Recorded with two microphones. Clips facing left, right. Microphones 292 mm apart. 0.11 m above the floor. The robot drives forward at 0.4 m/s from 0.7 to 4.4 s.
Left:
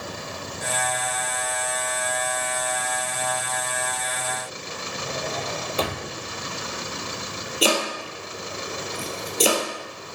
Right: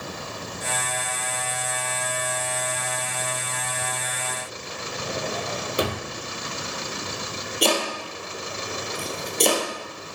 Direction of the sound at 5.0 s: 15° right (ahead or behind).